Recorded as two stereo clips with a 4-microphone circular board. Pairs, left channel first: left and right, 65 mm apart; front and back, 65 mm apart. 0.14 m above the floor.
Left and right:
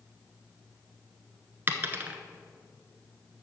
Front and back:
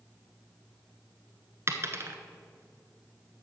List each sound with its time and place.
1.7 s a dropped coin: 140° right, 0.8 m